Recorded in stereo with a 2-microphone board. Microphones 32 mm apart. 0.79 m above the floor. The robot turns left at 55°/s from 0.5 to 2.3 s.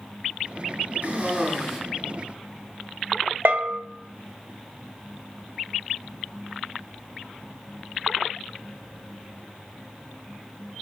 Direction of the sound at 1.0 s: 130° right.